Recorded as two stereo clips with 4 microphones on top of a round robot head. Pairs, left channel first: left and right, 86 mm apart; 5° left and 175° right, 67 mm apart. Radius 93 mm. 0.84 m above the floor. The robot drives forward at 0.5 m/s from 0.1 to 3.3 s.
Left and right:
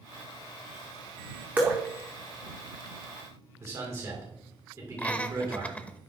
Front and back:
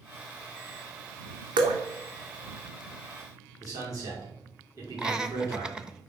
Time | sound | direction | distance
1.6 | dripping | 165° right | 0.5 m
3.6 | a man speaking | 145° right | 2.5 m
5.0 | laughter | 125° left | 0.7 m